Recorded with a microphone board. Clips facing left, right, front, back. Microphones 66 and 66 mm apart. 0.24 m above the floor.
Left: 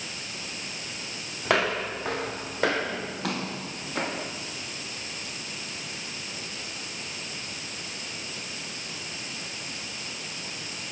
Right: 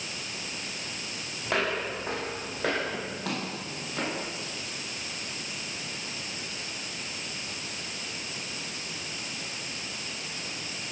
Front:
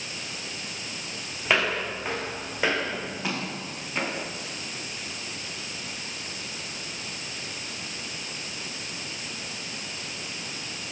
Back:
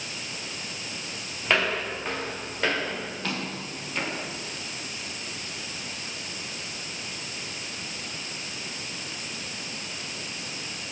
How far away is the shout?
I don't hear a shout.